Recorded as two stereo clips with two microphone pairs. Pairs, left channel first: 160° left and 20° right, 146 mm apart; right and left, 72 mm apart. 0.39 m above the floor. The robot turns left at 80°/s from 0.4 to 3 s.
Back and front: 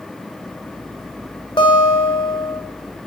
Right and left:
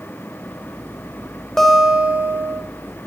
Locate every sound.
1.6 s a guitar: 170° right, 1.4 m; by 2.6 s 105° left, 1.4 m